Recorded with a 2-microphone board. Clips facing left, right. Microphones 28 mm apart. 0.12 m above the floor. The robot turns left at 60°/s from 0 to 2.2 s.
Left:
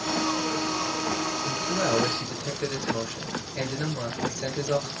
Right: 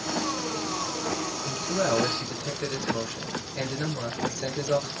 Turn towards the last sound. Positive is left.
turn(degrees=10)  # may be behind; listen again after turning